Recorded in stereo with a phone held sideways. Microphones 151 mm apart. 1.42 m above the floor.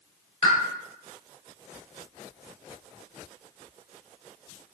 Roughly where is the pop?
Left.